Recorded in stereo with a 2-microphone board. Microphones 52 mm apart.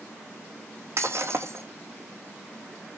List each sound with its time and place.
1.0 s breaking glass: 60° right (ahead or behind), 1.6 m